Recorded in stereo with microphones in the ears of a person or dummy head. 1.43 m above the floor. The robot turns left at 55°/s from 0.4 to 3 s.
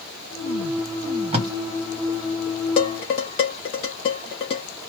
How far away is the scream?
I don't hear a scream.